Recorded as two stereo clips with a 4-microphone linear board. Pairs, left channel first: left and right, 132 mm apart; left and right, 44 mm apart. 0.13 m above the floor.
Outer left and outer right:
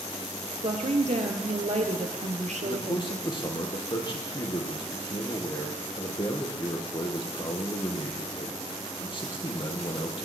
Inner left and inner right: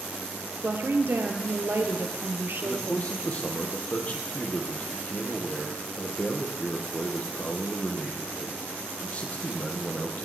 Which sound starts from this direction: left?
A man speaking, at 2.6 s.